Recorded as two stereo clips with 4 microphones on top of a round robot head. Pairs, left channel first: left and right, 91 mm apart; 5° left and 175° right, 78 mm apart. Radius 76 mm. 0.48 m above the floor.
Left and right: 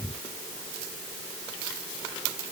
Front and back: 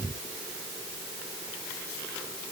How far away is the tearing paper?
No tearing paper in this recording.